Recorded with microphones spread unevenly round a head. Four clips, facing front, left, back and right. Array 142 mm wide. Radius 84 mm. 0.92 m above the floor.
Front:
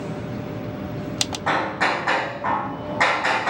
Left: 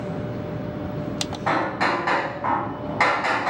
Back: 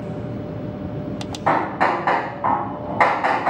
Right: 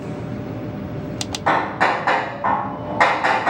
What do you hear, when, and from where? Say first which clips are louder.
1.5 s hammering: right 4 dB, back 4 dB; 150° right, 4 m